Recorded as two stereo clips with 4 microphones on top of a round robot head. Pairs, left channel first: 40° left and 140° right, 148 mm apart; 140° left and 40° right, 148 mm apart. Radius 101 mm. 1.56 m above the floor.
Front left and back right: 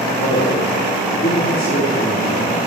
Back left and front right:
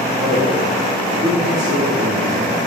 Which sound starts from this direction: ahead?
A man speaking, at 0.2 s.